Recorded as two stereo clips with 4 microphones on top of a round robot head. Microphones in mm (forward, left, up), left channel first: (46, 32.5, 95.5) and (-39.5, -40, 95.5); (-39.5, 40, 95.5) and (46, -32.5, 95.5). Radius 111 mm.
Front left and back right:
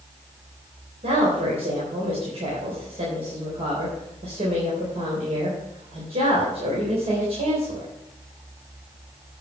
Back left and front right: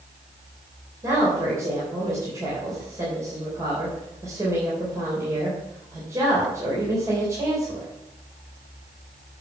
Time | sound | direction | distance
1.0 | a woman speaking | 105° right | 3.5 m